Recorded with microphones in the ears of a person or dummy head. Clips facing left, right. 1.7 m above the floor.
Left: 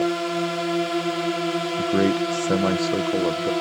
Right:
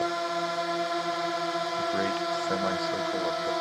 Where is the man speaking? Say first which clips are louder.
Left 12 dB; 50° left (ahead or behind).